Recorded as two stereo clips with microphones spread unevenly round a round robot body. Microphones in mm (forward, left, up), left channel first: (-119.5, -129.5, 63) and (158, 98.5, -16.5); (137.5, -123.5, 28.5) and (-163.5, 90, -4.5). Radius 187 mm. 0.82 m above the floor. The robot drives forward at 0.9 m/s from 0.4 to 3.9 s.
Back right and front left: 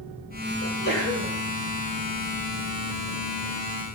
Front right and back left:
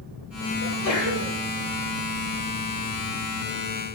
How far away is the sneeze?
About 3.5 m.